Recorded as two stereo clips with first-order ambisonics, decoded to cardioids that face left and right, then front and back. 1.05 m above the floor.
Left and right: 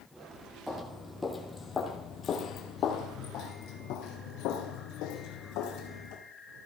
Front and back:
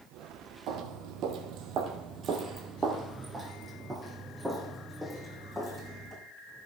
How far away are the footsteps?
About 1.5 m.